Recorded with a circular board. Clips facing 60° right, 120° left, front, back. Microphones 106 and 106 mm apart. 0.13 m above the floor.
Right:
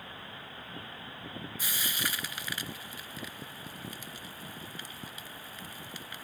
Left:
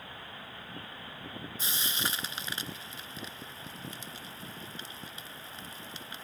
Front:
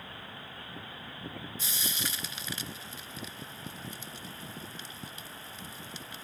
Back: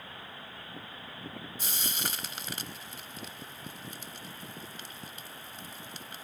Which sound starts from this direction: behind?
Frying, at 1.6 s.